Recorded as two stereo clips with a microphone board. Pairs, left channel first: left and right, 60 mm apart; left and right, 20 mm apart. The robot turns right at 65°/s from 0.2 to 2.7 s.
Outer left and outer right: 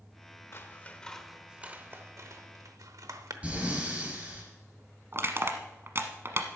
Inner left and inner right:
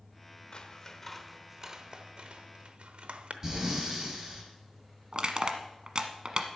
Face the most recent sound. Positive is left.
turn(degrees=-45)  # may be behind; listen again after turning